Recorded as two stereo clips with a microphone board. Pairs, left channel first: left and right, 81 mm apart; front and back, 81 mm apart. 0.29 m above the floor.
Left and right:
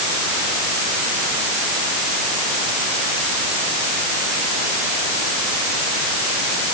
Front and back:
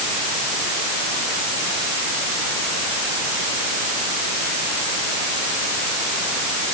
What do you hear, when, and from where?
Only background noise.